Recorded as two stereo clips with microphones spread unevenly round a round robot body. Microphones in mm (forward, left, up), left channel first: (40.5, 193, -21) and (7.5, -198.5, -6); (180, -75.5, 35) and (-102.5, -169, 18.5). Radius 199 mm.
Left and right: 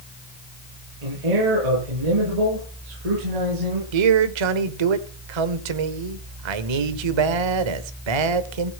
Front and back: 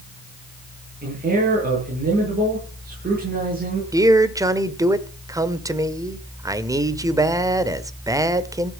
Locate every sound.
1.0 s a man speaking: 100° right, 8 m
3.9 s a man speaking: 85° right, 1.6 m